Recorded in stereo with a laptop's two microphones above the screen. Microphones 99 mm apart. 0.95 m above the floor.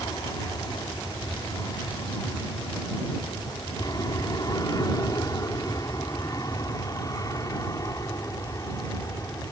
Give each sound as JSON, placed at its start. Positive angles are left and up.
{"t": 0.0, "sound": "an aircraft", "side_deg": 45}